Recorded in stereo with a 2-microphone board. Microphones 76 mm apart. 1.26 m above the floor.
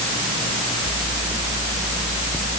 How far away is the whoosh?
No whoosh in this recording.